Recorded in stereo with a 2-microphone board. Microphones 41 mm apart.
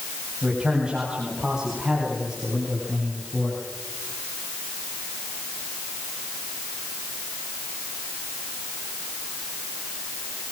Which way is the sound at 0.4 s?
25° right (ahead or behind).